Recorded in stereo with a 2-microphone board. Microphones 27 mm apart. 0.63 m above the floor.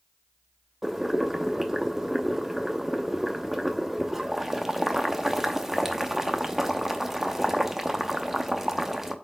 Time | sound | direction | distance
0.8 | boiling | 10° right (ahead or behind) | 0.9 m